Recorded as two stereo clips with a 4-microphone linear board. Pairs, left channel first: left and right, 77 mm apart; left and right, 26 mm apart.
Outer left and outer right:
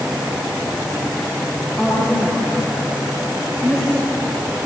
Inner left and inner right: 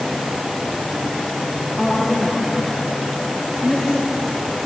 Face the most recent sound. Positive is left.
turn(degrees=20)  # may be behind; listen again after turning